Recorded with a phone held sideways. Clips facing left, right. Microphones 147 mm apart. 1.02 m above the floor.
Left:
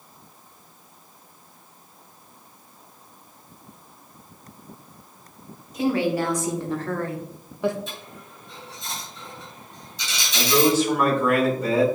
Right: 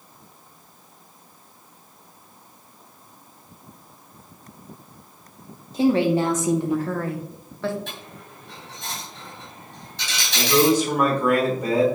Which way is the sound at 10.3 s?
15° right (ahead or behind).